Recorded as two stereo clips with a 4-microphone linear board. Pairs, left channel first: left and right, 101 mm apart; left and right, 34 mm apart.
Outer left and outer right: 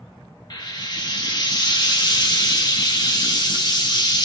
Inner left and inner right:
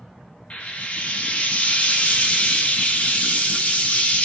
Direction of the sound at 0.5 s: 45° left (ahead or behind).